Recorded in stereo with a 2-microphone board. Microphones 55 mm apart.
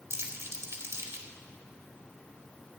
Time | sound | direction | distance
0.1 | crumpling | 55° right (ahead or behind) | 1.8 m